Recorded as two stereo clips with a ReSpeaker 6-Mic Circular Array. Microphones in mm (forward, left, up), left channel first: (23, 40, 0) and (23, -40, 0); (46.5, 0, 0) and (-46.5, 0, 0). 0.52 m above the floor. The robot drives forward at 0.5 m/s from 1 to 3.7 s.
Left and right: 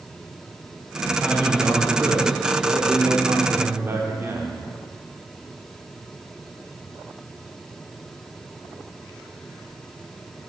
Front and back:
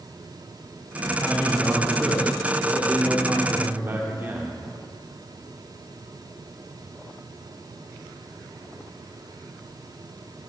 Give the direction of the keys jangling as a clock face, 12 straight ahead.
No keys jangling in this recording.